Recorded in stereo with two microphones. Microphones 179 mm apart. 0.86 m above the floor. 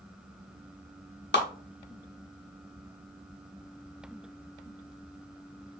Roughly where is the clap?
Left.